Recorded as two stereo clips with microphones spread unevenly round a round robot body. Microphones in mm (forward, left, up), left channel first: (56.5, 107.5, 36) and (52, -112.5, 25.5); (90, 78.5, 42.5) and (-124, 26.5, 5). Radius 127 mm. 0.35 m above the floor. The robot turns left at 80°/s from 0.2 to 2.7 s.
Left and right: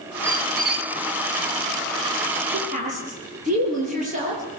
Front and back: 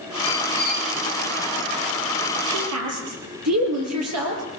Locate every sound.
0.2 s a squeak: 15° right, 2 m; by 0.9 s 70° right, 2 m
2.5 s a woman speaking: 135° right, 7.5 m; by 4.4 s 155° right, 7.5 m